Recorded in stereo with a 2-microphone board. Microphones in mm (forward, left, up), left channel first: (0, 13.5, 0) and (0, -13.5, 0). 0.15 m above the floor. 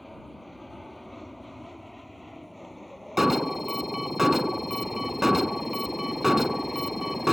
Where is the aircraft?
5° left (ahead or behind).